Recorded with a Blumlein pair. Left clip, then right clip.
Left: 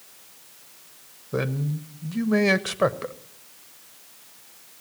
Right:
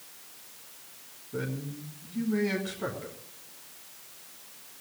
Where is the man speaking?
50° left, 1.2 m.